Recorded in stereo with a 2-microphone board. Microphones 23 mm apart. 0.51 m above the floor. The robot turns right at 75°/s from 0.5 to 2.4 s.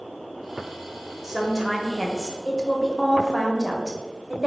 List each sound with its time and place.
1.2 s a woman speaking: 10° right (ahead or behind), 0.7 m; by 4.5 s 25° left (ahead or behind), 0.7 m